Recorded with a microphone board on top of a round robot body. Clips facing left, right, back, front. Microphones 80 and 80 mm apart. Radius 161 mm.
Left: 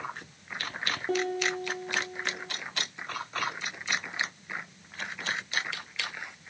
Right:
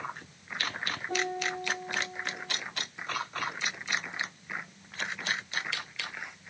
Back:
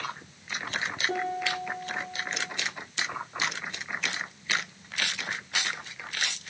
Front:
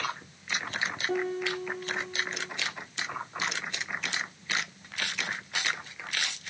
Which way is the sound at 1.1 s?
90° left.